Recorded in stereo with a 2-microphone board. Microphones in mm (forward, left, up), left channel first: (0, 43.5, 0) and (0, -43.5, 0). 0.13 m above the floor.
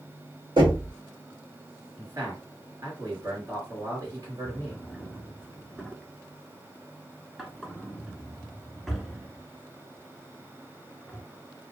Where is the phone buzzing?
I don't hear a phone buzzing.